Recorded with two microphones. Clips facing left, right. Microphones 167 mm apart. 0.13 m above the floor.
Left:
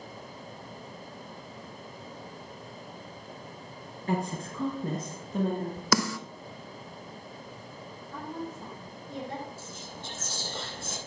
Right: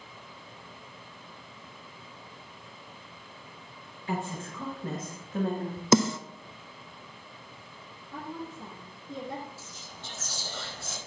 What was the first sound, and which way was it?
A woman speaking, 40° left (ahead or behind).